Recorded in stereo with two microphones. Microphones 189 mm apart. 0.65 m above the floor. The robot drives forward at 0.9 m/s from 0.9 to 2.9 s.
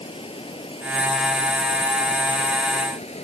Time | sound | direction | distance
0.0 | running water | 30° left (ahead or behind) | ?